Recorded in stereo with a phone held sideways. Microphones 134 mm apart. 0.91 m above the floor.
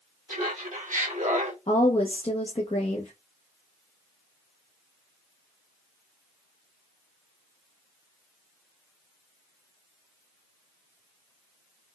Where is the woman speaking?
45° left (ahead or behind), 0.9 m.